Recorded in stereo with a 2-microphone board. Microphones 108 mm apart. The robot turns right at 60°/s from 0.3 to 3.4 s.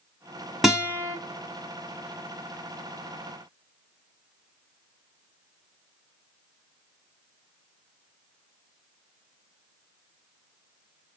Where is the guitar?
Straight behind, 1.3 m; by 1.2 s 150° right, 1.3 m.